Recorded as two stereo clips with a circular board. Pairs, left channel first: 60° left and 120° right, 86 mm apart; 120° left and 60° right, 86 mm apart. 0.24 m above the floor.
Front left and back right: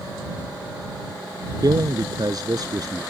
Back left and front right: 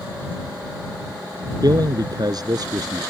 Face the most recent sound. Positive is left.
turn(degrees=-90)